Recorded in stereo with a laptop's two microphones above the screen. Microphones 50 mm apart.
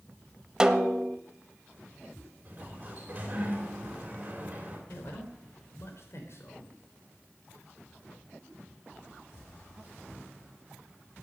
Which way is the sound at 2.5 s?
35° right (ahead or behind).